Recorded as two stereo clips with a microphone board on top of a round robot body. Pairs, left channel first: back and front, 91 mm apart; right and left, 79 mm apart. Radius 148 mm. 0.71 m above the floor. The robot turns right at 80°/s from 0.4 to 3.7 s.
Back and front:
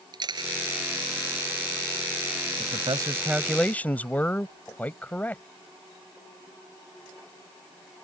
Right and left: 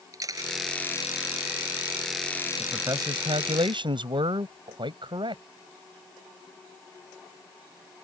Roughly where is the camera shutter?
Ahead left.